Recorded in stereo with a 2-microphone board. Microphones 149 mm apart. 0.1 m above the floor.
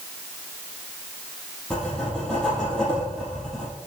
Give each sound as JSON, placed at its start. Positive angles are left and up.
{"t": 1.7, "sound": "writing", "side_deg": 5, "distance_m": 3.5}